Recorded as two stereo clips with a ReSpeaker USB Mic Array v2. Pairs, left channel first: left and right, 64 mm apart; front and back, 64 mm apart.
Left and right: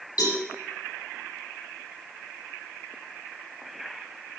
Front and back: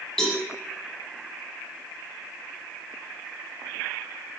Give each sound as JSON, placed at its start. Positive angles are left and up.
{"t": 0.2, "sound": "a cowbell", "azimuth_deg": 90, "distance_m": 6.5}